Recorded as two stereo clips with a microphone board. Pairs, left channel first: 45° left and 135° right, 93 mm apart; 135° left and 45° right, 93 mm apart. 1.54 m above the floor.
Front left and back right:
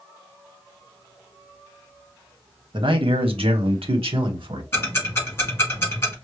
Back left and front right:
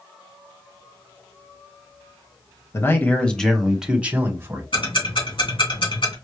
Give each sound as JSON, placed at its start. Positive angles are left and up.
{"t": 2.7, "sound": "a man speaking", "azimuth_deg": -165, "distance_m": 1.0}
{"t": 4.7, "sound": "ticking", "azimuth_deg": 110, "distance_m": 2.0}